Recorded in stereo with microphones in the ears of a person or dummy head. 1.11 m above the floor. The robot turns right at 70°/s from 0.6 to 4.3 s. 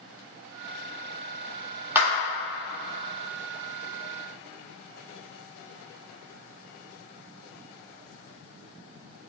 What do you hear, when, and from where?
1.9 s a clap: 15° right (ahead or behind), 1.2 m; by 2.1 s 5° right (ahead or behind), 1.2 m